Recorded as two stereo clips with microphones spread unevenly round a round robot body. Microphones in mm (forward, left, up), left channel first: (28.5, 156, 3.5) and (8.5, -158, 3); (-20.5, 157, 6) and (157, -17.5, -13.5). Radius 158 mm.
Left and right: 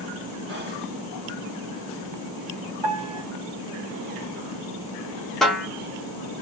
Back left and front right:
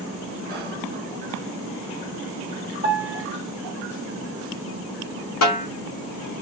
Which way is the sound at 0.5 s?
55° right.